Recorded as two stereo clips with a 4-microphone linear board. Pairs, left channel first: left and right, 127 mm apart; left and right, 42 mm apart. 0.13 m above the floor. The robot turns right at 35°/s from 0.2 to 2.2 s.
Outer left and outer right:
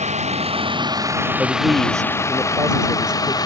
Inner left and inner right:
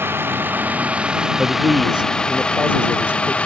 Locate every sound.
0.0 s a vehicle: 60° right (ahead or behind); by 3.5 s 30° left (ahead or behind)
1.4 s a man speaking: 5° right (ahead or behind); by 3.4 s 30° right (ahead or behind)